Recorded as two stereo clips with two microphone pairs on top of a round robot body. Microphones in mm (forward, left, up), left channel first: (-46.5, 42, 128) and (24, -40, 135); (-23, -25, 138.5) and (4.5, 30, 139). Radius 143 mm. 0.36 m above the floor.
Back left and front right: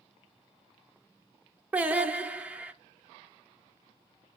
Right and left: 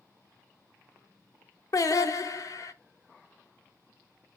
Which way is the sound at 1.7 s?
125° right.